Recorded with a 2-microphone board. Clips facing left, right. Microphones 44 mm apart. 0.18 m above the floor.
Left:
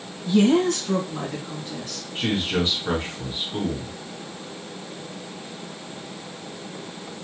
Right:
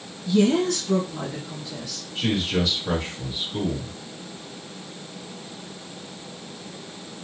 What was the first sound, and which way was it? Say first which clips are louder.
A woman speaking: left 2 dB; 35° left (ahead or behind).